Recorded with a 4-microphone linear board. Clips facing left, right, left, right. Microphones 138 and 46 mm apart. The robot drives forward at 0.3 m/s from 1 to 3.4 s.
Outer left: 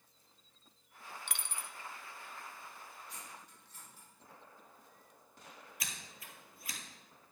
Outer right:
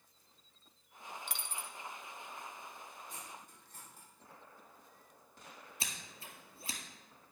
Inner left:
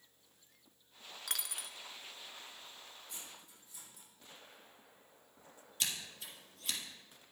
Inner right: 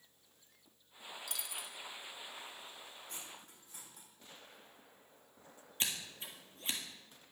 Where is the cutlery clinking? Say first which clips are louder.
Outer right 2 dB, inner right 2 dB; 50° right (ahead or behind), 5 m.